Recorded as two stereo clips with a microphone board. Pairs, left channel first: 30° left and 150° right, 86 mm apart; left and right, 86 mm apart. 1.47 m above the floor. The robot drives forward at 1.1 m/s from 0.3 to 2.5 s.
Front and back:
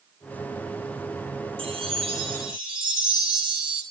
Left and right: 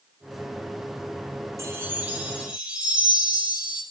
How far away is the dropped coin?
No dropped coin in this recording.